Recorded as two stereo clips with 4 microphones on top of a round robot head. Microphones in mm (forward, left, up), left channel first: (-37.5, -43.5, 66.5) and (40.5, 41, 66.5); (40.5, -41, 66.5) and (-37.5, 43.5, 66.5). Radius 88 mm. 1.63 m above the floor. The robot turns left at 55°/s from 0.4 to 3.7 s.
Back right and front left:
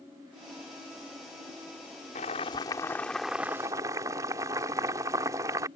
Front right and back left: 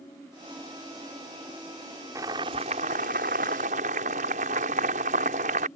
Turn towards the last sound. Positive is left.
turn(degrees=110)